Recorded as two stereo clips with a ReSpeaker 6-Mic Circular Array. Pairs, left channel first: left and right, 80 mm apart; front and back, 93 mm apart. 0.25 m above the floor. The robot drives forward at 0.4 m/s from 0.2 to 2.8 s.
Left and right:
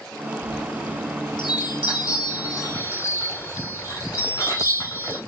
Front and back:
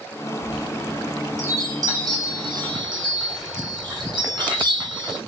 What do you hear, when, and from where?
0.4 s a chime: 105° left, 1.0 m; by 5.2 s 140° left, 1.6 m